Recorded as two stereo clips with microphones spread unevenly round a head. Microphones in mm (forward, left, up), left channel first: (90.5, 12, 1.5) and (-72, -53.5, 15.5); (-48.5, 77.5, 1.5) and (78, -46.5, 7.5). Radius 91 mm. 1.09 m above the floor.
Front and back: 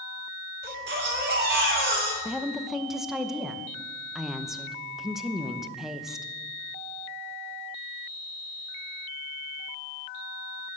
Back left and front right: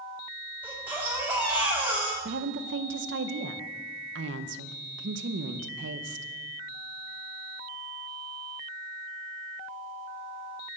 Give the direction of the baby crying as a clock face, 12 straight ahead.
4 o'clock.